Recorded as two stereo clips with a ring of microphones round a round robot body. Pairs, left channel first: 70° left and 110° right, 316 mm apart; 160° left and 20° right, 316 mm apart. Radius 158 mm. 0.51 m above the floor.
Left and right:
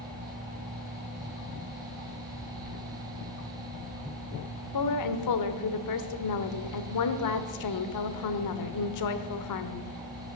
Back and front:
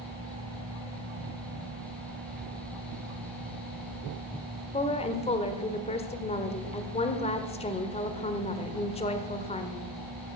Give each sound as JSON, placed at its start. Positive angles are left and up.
{"t": 4.7, "sound": "a woman speaking", "azimuth_deg": 85, "distance_m": 1.3}